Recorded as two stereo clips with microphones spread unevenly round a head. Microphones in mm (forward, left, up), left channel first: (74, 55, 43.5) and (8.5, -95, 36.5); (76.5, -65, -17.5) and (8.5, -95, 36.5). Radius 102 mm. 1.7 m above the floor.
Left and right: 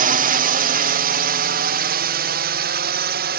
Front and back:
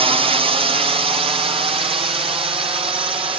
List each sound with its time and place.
0.0 s a drone: 130° right; by 3.4 s 140° right